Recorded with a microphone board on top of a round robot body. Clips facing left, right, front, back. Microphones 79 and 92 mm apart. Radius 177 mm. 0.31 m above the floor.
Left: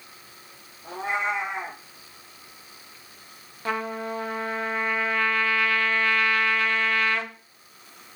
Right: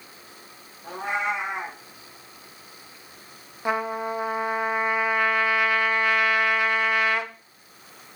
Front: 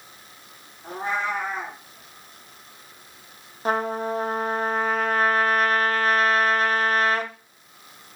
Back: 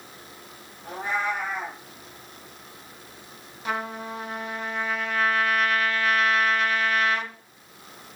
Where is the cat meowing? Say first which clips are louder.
Even, front 1 dB; 60° right, 0.6 m.